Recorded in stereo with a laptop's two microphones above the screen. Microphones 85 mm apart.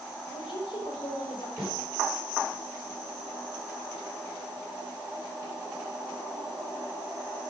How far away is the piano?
I don't hear a piano.